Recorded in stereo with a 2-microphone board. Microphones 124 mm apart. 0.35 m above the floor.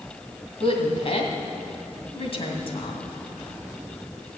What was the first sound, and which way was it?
A woman speaking, 50° left (ahead or behind).